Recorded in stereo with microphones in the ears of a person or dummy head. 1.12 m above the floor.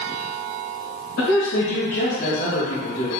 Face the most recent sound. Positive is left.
turn(degrees=40)  # may be behind; listen again after turning